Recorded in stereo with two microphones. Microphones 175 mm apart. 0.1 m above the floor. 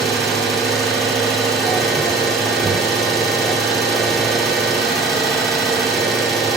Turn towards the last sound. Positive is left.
turn(degrees=0)  # may be behind; listen again after turning